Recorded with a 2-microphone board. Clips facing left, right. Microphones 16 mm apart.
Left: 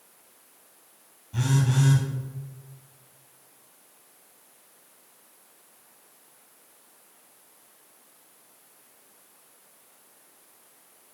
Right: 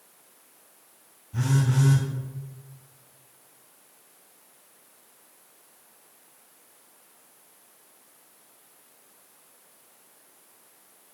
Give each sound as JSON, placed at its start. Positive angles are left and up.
{"t": 1.3, "sound": "a phone buzzing", "side_deg": 60, "distance_m": 3.0}